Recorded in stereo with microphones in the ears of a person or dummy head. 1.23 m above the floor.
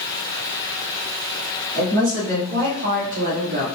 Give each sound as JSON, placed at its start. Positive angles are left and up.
{"t": 1.8, "sound": "a woman speaking", "side_deg": -80, "distance_m": 3.0}